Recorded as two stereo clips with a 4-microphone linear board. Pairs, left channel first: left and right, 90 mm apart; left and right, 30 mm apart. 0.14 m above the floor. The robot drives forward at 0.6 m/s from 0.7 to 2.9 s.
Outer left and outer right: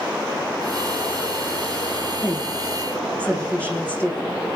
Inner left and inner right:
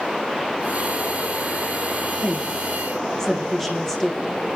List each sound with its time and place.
2.2 s a woman speaking: 15° left (ahead or behind), 6.5 m